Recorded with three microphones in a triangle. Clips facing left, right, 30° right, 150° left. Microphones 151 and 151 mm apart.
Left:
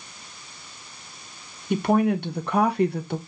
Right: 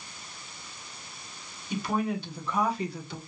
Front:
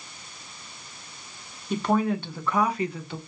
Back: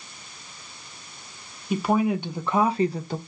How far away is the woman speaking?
About 1.1 m.